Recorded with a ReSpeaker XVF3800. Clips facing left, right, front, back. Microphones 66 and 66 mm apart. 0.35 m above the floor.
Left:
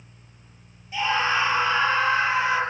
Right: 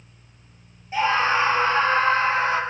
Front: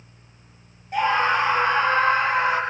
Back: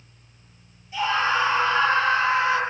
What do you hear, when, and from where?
0.9 s a scream: 35° right, 6.5 m; by 2.6 s 40° right, 7.5 m